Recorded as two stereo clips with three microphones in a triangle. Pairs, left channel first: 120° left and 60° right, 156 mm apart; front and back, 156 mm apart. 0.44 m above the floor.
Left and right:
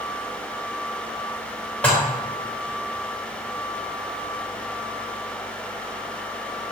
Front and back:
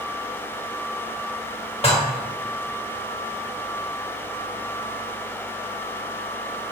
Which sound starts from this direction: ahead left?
Dishes clattering, at 1.8 s.